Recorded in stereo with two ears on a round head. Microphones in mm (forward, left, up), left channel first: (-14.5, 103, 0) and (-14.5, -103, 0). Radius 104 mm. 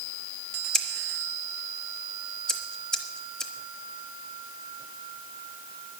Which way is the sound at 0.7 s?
5° left (ahead or behind).